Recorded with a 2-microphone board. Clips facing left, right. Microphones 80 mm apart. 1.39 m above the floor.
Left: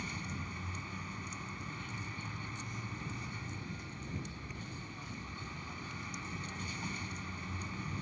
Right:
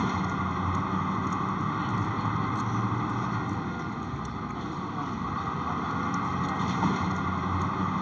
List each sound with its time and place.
0.0 s a vehicle: 65° right (ahead or behind)